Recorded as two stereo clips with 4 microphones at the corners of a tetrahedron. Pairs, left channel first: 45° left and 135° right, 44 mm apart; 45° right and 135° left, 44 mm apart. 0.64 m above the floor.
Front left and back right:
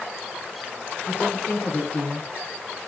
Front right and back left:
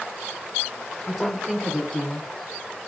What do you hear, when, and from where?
1.1 s a woman speaking: 50° left, 1.3 m; by 2.9 s 25° right, 1.0 m